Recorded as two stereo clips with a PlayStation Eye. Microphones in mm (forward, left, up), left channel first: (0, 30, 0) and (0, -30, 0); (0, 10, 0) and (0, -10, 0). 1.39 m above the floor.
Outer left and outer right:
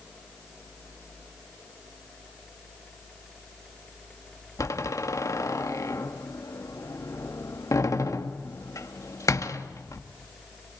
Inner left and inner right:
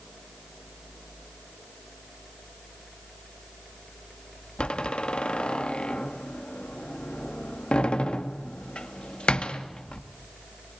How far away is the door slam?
About 1.9 m.